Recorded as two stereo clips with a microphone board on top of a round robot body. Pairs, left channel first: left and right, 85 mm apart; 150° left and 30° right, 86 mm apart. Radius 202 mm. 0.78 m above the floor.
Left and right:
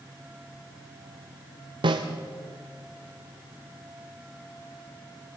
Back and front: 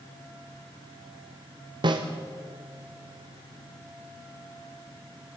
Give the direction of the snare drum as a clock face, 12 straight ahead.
2 o'clock.